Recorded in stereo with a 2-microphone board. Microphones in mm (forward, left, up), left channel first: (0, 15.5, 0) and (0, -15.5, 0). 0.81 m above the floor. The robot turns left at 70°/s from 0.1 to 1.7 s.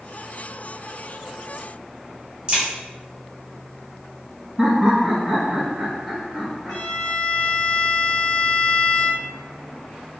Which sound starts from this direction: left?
A violin, at 6.7 s.